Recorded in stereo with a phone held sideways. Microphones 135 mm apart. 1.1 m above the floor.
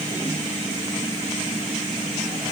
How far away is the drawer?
No drawer in this recording.